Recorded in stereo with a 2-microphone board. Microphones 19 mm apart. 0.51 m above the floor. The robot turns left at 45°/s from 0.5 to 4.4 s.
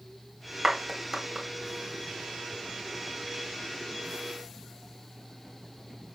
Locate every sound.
0.6 s a clap: 45° right (ahead or behind), 2 m; by 1.5 s 10° right (ahead or behind), 2 m